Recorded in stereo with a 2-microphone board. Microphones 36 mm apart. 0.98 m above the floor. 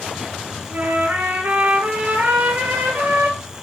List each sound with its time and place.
0.7 s a trumpet: 60° right (ahead or behind), 8 m